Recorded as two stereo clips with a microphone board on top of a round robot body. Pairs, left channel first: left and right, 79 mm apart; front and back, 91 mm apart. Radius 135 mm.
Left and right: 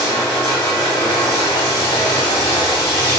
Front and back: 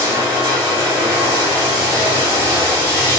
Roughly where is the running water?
Behind left.